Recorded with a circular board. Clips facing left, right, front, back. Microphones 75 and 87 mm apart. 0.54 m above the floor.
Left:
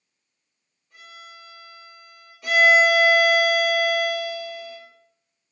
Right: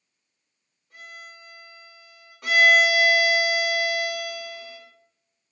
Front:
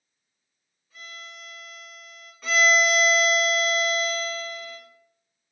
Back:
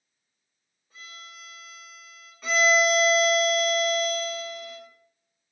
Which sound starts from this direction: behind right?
A violin, at 0.9 s.